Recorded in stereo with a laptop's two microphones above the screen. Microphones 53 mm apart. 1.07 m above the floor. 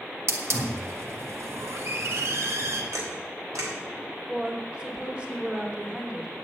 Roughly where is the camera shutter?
Right.